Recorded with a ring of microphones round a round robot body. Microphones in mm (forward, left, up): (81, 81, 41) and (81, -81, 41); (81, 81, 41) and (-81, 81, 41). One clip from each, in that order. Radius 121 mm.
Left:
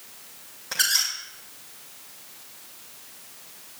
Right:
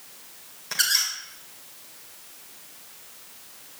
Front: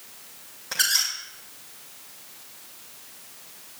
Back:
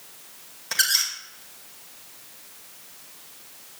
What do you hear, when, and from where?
0.7 s a squeak: 145° right, 2.5 m